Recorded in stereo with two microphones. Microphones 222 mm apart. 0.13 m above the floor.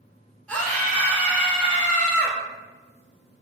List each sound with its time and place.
0.5 s a scream: 5° left (ahead or behind), 1.2 m